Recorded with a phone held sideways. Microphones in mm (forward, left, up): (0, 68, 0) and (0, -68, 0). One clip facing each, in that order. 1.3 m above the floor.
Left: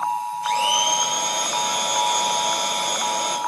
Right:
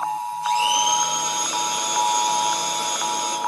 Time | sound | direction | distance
0.4 | a blender | 60° left (ahead or behind) | 7.5 m